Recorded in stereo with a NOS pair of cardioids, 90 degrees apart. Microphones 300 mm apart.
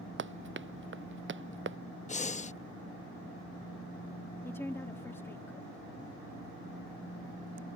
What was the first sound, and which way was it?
Running footsteps, 35° right.